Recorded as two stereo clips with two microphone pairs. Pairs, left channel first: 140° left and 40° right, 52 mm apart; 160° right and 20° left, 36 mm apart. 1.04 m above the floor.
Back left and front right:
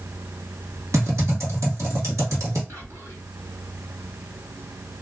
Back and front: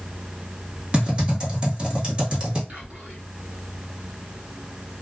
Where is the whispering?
20° right, 1.7 m.